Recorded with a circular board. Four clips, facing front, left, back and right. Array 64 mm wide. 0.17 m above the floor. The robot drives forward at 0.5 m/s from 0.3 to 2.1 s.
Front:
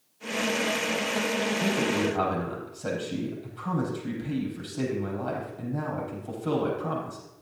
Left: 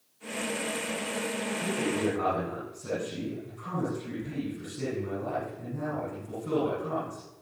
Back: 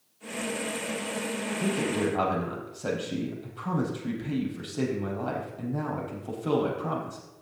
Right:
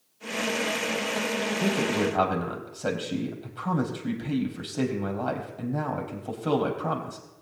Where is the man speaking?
100° right, 4.5 m; by 7.2 s 105° right, 4.5 m.